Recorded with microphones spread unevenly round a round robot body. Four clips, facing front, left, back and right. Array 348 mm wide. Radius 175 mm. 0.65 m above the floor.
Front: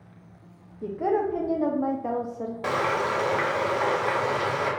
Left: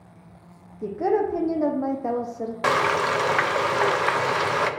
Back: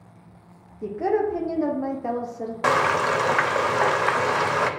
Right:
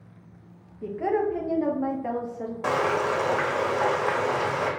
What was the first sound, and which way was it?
A woman speaking, 90° left.